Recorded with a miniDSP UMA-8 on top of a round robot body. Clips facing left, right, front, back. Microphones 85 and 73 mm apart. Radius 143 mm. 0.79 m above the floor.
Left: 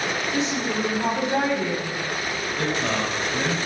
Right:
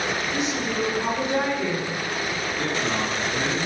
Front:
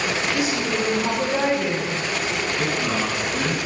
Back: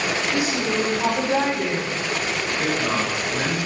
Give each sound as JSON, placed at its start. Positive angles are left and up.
{"t": 0.3, "sound": "a woman speaking", "azimuth_deg": 150, "distance_m": 6.5}
{"t": 2.6, "sound": "a man speaking", "azimuth_deg": 115, "distance_m": 5.5}